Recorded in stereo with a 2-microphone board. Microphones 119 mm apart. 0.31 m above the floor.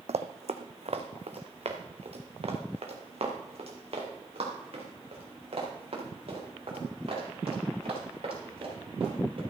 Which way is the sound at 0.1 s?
70° right (ahead or behind).